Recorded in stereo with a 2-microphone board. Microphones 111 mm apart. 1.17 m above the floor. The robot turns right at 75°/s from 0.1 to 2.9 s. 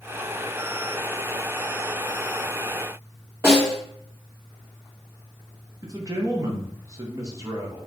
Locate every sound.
3.4 s a snare drum: 20° right (ahead or behind), 2.0 m
5.8 s a man speaking: 30° right (ahead or behind), 0.9 m